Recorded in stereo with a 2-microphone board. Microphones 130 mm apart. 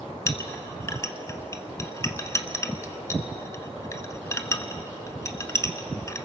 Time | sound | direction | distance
0.3 | a clink | 25° left (ahead or behind) | 1.1 m